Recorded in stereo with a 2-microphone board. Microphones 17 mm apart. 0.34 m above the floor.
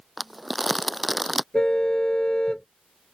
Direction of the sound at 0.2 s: Centre (ahead or behind).